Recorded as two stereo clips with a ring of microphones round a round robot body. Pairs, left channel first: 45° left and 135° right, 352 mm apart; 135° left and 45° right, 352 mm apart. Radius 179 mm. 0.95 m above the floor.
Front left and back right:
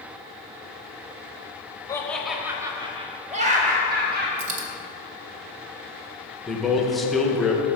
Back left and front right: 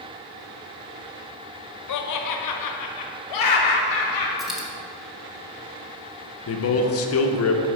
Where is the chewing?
No chewing in this recording.